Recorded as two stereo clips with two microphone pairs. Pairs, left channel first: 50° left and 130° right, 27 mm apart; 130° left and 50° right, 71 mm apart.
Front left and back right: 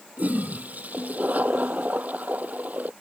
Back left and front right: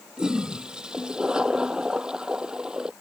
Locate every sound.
0.2 s a toilet flushing: 130° right